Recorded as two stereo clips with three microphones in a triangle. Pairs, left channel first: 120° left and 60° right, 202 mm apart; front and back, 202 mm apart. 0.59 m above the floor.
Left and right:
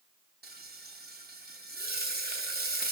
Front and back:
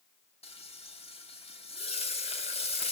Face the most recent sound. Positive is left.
turn(degrees=-50)